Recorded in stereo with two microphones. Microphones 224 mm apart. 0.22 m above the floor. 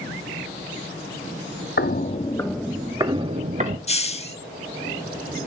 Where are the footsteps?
50° left (ahead or behind), 1.0 m; by 3.8 s 35° right (ahead or behind), 1.8 m.